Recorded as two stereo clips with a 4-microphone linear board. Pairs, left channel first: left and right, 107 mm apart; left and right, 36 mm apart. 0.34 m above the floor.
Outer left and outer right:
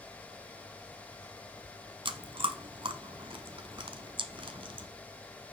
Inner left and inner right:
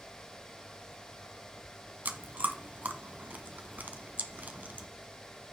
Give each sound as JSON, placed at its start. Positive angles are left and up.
{"t": 2.0, "sound": "chewing", "side_deg": -50, "distance_m": 0.9}